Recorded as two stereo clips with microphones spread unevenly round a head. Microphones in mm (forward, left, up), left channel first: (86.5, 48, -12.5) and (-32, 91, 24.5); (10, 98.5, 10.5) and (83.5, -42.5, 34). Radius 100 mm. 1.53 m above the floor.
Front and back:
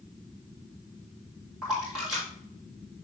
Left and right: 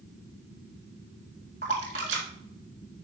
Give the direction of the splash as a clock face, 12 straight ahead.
4 o'clock.